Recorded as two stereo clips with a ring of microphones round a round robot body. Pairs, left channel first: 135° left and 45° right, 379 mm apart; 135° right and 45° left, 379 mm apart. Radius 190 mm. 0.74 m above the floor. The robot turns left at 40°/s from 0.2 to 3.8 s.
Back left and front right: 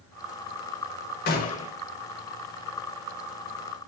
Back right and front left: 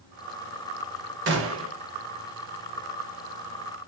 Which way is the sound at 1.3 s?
85° left.